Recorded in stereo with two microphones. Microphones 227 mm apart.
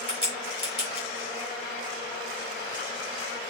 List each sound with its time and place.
0.1 s a crack: 45° right (ahead or behind), 3.5 m